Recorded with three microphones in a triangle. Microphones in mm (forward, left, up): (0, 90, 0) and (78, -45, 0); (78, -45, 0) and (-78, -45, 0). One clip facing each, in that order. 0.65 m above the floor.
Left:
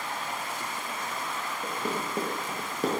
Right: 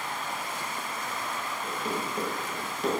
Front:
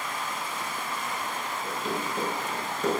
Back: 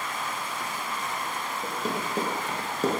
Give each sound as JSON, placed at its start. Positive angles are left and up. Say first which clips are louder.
{"t": 1.6, "sound": "running footsteps", "louder": "left 1 dB, back 1 dB", "azimuth_deg": 140, "distance_m": 1.4}